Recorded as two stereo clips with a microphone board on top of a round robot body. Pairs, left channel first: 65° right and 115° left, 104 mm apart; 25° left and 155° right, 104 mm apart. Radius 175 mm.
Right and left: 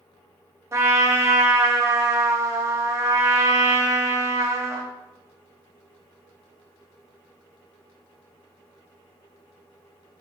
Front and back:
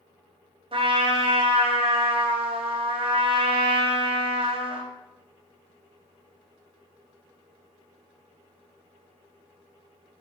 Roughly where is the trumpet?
Behind.